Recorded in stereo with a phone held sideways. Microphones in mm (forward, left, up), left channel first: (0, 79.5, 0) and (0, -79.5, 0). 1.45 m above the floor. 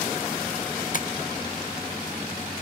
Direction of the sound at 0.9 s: 55° left (ahead or behind).